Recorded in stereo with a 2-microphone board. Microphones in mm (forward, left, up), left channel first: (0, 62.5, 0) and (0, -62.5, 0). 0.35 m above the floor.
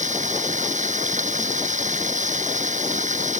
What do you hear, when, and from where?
0.0 s running water: 85° right